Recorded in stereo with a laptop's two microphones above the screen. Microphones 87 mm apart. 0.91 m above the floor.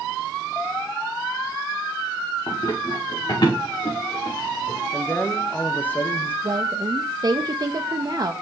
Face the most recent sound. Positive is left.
turn(degrees=-45)  # may be behind; listen again after turning